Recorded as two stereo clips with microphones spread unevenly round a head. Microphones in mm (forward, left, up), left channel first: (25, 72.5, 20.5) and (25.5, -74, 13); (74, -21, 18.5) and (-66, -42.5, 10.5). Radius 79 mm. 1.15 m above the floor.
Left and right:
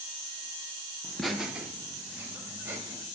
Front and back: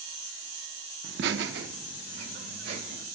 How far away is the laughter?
About 0.5 m.